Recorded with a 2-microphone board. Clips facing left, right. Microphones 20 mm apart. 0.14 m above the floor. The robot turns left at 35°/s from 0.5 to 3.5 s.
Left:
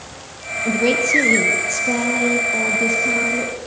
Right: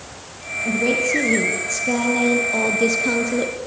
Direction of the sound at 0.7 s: 45° left.